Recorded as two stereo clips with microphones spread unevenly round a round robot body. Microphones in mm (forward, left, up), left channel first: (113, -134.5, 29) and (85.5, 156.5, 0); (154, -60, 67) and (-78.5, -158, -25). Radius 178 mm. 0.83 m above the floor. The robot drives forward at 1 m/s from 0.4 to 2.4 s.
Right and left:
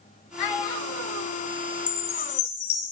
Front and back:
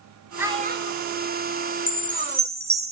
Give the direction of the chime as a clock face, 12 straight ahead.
2 o'clock.